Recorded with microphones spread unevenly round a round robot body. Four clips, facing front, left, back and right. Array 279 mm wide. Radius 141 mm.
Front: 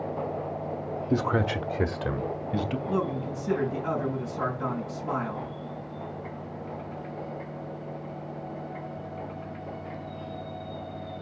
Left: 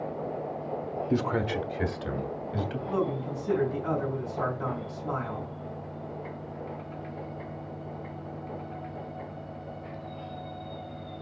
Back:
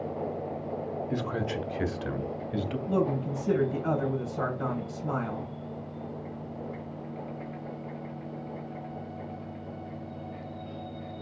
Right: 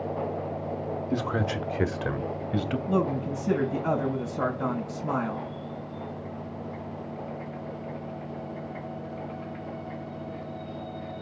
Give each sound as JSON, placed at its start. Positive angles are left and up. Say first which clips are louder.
{"t": 1.1, "sound": "a man speaking", "louder": "left 2 dB, front 8 dB", "azimuth_deg": 15, "distance_m": 0.9}
{"t": 2.9, "sound": "a man speaking", "louder": "right 3 dB, back 5 dB", "azimuth_deg": -135, "distance_m": 3.0}